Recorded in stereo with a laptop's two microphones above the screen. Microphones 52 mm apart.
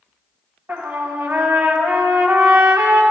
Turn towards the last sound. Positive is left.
turn(degrees=-50)  # may be behind; listen again after turning